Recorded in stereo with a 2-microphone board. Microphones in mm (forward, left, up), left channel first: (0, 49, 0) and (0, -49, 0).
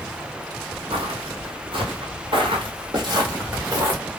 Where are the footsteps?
85° right, 1.5 m; by 4.0 s 30° right (ahead or behind), 1.7 m.